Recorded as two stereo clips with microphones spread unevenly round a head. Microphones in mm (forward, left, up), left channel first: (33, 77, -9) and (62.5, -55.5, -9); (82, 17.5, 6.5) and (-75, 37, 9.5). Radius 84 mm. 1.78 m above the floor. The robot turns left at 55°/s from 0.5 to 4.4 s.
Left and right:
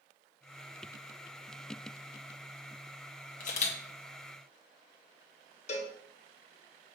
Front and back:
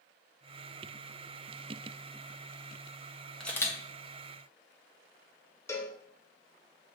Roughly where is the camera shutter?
Left.